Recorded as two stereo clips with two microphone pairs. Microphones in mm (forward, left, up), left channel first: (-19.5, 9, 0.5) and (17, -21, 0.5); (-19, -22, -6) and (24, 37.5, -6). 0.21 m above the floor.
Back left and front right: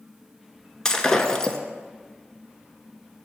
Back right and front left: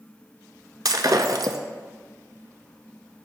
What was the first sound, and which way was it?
Breaking glass, 65° left.